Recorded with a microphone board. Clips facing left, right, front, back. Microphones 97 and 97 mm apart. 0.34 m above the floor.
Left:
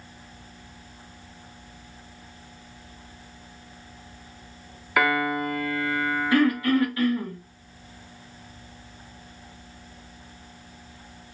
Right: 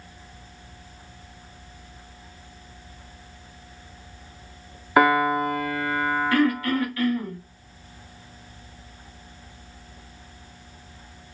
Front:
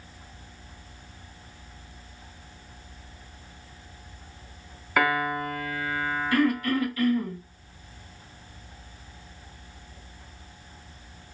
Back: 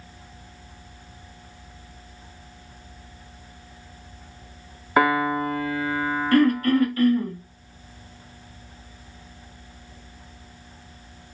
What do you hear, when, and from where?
5.0 s a piano: 135° right, 0.8 m
6.3 s throat clearing: 150° left, 2 m